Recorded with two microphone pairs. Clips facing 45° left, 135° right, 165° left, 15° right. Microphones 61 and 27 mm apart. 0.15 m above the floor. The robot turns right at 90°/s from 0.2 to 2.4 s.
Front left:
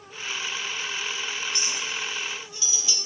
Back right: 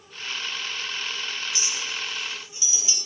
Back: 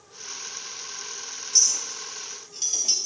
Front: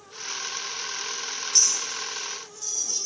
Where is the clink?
80° left, 2.5 m; by 3.0 s 155° left, 2.5 m.